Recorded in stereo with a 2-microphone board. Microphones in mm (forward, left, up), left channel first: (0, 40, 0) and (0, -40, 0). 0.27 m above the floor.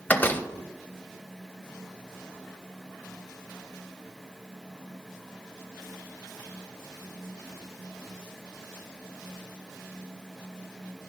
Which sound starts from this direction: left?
A door slam, at 0.1 s.